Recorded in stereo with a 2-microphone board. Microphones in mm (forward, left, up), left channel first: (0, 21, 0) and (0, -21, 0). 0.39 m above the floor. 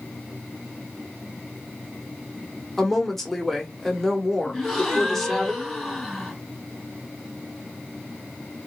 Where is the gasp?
5° left (ahead or behind), 1.6 m.